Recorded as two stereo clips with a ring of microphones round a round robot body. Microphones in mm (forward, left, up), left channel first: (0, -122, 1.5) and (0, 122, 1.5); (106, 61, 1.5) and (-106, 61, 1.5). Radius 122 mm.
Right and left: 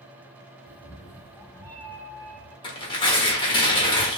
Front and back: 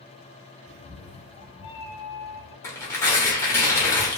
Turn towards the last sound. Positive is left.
turn(degrees=-55)